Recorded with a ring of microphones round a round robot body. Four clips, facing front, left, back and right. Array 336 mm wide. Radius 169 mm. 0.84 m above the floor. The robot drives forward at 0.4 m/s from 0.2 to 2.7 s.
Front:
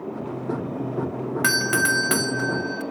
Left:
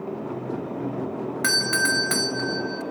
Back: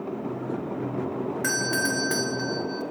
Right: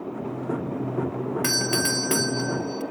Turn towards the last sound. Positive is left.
turn(degrees=-10)